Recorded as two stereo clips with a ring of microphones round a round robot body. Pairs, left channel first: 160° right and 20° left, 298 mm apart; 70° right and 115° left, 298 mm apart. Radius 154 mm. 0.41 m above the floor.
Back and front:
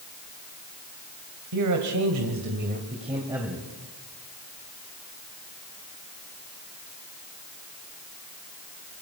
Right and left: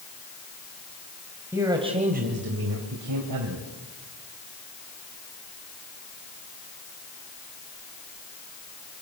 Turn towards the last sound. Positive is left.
turn(degrees=110)